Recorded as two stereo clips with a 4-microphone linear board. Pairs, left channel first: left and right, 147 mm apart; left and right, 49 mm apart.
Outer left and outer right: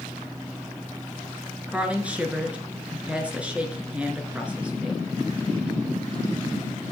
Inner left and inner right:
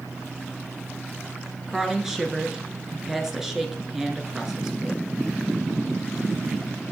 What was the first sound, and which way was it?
A woman speaking, 10° right (ahead or behind).